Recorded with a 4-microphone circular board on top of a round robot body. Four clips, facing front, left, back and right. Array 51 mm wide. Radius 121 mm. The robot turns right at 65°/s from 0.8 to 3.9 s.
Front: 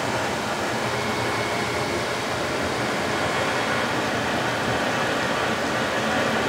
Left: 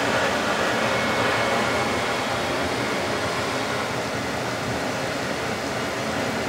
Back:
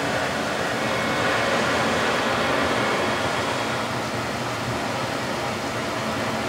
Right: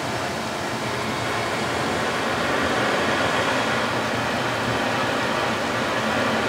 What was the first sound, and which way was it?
Running water, 100° left.